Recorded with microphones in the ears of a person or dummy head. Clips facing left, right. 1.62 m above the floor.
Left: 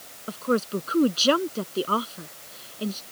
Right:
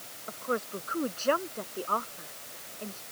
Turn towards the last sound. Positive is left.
turn(degrees=45)  # may be behind; listen again after turning